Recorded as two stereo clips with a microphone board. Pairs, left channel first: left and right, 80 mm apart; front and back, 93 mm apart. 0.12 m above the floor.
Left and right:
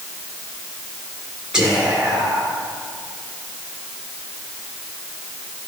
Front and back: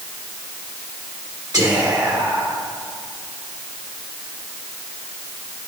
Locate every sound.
1.5 s whispering: 165° right, 1.9 m